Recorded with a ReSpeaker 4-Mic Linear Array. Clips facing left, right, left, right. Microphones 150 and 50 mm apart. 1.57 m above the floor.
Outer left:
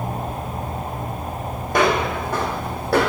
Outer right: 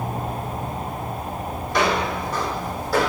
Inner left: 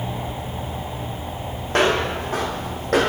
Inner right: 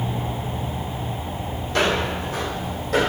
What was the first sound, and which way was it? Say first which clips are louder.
Footsteps: outer left 3 dB, inner left 3 dB; 50° left (ahead or behind).